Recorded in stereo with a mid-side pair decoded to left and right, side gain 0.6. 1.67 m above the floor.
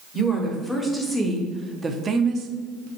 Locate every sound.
0.1 s a woman speaking: 15° left, 1.6 m; by 2.9 s 75° right, 0.7 m